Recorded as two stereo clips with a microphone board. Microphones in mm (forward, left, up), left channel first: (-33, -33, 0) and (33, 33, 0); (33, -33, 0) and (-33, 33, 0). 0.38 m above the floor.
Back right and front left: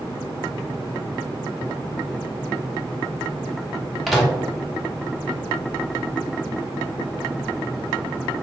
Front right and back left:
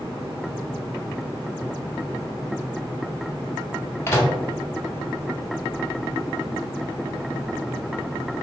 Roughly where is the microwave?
Ahead right.